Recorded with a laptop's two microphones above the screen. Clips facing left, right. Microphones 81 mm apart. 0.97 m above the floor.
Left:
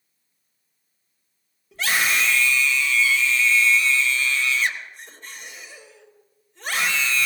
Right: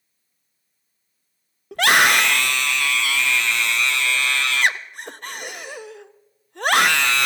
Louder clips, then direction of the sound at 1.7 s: Right 7 dB; 70° right (ahead or behind).